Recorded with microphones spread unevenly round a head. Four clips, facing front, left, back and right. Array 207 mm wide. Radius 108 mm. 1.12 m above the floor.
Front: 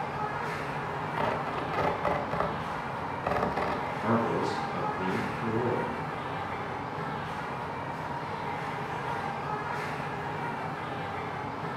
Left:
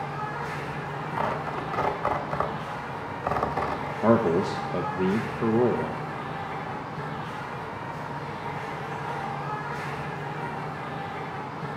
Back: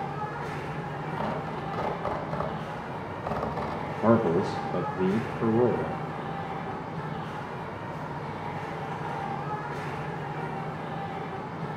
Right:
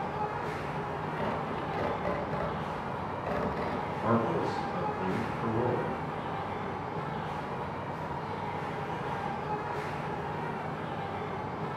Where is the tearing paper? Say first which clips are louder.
Left 7 dB, front 2 dB; 55° left, 1.6 m.